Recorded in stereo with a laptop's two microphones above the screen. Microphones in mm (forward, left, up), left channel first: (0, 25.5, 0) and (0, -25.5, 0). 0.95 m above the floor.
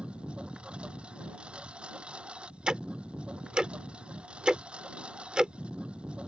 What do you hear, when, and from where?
0.0 s a lawn mower: 20° right (ahead or behind)
2.7 s ticking: 20° right (ahead or behind)